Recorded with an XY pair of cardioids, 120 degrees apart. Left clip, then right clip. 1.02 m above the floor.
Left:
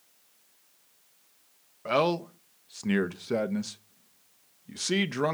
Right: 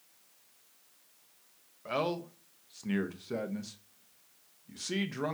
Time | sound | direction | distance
1.9 | a man speaking | 40° left | 0.6 m